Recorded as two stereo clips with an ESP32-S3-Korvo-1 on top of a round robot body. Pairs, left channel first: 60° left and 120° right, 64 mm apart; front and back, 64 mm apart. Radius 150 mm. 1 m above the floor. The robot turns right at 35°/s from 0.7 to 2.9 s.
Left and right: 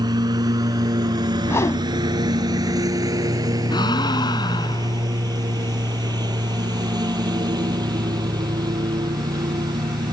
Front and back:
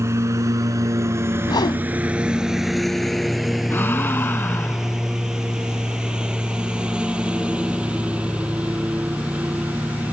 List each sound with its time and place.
0.0 s a lawn mower: 135° right; by 10.1 s 110° right
1.4 s a whoosh: 5° left; by 1.9 s 20° left
3.7 s a gasp: 60° left